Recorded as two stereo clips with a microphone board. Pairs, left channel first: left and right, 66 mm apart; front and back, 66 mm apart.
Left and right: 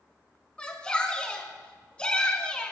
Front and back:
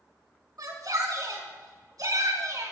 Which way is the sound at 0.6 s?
165° left.